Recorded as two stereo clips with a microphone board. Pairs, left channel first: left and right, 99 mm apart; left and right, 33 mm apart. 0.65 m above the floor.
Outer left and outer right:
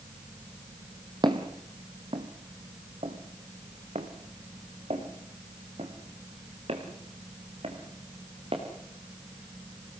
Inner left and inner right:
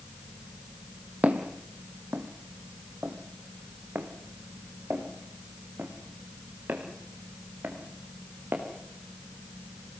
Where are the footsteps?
45° right (ahead or behind), 2.0 m; by 8.6 s 65° right (ahead or behind), 5 m.